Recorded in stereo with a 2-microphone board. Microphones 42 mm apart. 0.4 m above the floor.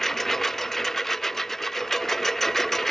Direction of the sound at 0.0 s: 10° left (ahead or behind).